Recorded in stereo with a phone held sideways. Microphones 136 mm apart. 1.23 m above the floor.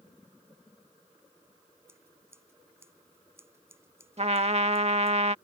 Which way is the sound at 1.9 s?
20° right (ahead or behind).